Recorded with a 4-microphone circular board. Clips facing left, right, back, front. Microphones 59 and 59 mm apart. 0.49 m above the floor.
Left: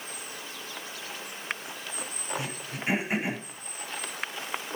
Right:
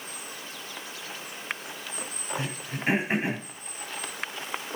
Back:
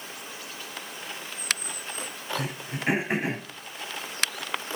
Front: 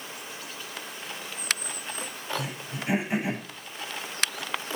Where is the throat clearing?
140° right, 9.5 m.